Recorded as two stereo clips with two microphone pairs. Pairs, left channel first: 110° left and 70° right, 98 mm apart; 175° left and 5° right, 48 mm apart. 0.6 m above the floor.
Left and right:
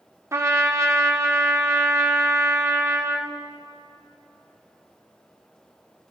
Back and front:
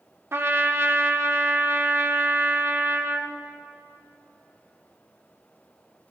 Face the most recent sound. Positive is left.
turn(degrees=-15)